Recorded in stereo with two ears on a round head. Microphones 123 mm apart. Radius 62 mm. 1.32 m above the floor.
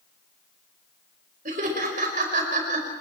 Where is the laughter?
60° right (ahead or behind), 5.5 m.